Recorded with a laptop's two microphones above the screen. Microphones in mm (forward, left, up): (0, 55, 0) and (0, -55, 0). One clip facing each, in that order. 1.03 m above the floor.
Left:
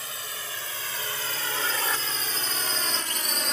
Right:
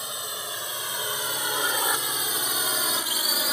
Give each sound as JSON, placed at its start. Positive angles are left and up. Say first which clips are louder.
{"t": 0.0, "sound": "a drone", "louder": "right 3 dB", "side_deg": -20}